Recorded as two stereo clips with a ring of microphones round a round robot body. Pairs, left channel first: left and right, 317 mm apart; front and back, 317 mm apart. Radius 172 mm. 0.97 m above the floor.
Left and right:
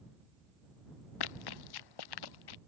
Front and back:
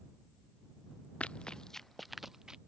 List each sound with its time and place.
1.2 s running footsteps: 85° left; by 2.6 s 90° left